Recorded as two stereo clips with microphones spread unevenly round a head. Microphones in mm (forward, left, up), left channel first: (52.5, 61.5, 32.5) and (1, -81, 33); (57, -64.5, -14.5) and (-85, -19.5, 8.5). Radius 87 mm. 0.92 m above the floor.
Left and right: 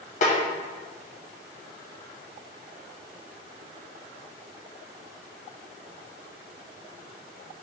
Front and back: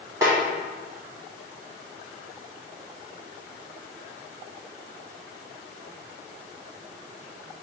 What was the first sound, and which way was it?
A snare drum, 85° left.